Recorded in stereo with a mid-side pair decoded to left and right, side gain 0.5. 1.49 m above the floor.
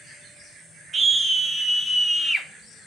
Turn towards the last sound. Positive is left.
turn(degrees=15)